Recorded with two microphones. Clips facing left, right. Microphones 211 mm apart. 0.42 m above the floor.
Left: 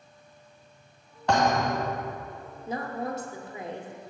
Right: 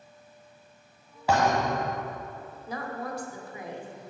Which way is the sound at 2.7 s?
25° left (ahead or behind).